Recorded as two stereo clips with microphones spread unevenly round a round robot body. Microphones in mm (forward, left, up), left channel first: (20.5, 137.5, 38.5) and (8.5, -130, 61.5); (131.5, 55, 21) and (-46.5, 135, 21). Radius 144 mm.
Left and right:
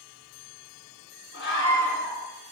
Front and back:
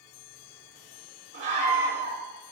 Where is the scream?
135° left, 5 m.